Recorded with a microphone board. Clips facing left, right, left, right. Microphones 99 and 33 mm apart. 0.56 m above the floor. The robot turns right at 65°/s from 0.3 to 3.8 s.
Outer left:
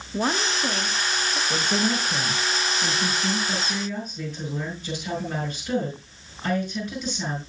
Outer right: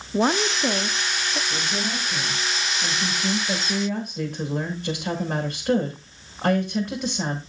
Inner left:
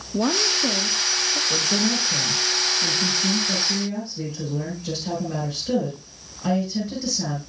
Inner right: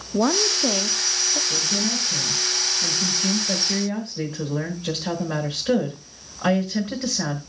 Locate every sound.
0.1 s a woman speaking: 20° right (ahead or behind), 0.6 m; by 1.4 s 25° right (ahead or behind), 0.6 m
1.5 s a woman speaking: 85° left, 6 m; by 7.4 s 125° right, 6 m